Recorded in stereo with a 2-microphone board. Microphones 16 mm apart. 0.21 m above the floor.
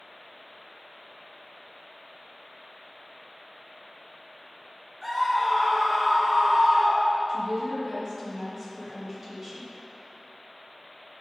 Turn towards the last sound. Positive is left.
turn(degrees=-25)  # may be behind; listen again after turning